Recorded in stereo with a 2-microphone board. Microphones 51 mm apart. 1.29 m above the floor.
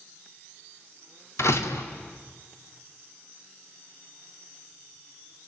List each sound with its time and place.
1.4 s a door slam: 65° left (ahead or behind), 1.9 m